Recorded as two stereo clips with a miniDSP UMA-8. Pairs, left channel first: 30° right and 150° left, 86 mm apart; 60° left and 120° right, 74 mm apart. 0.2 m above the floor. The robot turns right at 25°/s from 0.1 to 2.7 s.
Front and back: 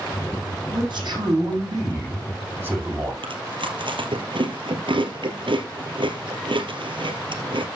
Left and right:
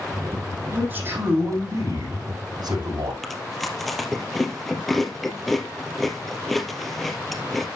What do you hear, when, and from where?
0.7 s a man speaking: 170° left, 7.5 m; by 3.1 s 140° right, 7.5 m
3.2 s chewing: 150° left, 2 m